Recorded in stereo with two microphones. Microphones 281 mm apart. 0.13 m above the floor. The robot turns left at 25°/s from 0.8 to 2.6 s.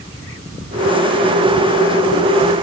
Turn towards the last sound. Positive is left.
No sound to turn to.